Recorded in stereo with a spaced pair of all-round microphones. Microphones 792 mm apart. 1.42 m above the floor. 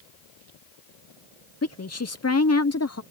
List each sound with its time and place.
1.6 s a woman speaking: 20° left (ahead or behind)